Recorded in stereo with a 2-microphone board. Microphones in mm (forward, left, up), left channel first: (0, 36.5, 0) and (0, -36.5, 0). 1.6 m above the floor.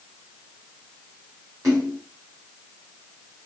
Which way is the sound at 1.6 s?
45° right (ahead or behind).